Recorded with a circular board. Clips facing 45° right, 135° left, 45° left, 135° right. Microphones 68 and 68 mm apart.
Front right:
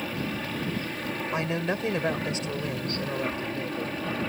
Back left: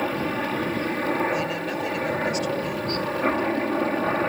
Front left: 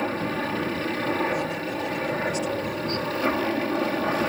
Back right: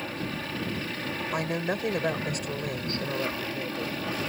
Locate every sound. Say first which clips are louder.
0.0 s a helicopter: back left 7 dB, front left 7 dB; 90° left
1.3 s a woman speaking: back left 2 dB, front left 2 dB; 105° right